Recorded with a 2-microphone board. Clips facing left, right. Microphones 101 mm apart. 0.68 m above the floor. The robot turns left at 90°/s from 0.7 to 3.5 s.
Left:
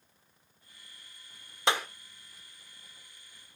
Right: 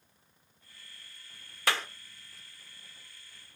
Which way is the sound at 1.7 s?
20° left (ahead or behind).